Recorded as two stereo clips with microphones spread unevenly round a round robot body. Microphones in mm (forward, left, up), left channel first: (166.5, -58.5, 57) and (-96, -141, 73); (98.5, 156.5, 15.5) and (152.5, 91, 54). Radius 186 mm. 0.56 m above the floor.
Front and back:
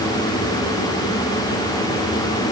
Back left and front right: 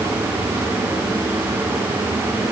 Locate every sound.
Only background noise.